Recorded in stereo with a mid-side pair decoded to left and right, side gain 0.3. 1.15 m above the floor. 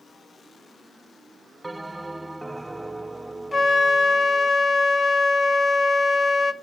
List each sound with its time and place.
1.6 s a bell: 15° right, 0.7 m
3.5 s a flute: 45° left, 1.3 m